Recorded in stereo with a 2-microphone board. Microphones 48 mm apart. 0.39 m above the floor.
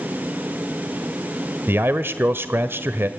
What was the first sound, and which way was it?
A man speaking, 50° right (ahead or behind).